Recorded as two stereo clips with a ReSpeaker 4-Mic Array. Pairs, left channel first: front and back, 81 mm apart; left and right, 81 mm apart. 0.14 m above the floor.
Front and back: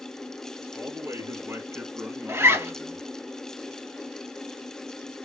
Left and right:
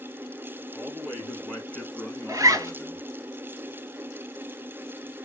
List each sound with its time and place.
0.7 s a man speaking: 175° left, 1.9 m; by 3.1 s 105° left, 1.5 m
2.3 s a zipper: 125° right, 1.1 m